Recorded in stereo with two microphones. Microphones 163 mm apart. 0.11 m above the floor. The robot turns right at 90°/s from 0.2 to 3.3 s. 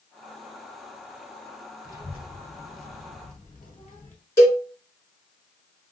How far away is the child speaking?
About 1.7 m.